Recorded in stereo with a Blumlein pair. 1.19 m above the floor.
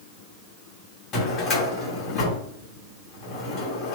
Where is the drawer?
25° left, 1.1 m.